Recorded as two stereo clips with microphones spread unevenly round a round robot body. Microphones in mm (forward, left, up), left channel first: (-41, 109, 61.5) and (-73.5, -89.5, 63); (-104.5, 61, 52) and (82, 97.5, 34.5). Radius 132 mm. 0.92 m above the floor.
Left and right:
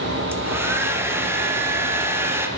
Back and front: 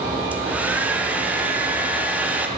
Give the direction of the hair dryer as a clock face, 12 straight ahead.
1 o'clock.